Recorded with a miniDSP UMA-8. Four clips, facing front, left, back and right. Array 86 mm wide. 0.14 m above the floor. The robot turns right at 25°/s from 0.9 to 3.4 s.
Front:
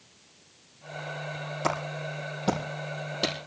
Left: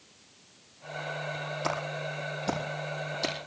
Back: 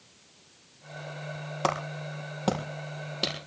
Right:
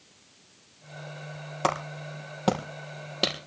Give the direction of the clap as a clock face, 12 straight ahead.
4 o'clock.